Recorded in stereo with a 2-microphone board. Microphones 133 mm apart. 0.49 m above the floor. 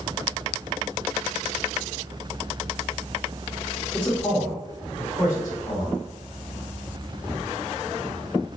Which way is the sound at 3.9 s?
10° left (ahead or behind).